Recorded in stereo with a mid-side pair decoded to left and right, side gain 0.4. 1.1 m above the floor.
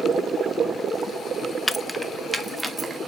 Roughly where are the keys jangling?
Ahead.